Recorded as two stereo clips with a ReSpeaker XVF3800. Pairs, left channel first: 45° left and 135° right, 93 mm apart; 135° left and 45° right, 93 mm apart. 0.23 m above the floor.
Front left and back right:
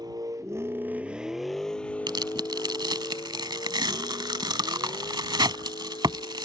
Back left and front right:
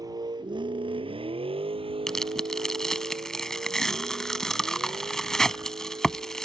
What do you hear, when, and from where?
0.0 s a vehicle: 95° right; by 6.5 s 5° left
2.1 s tearing paper: 140° right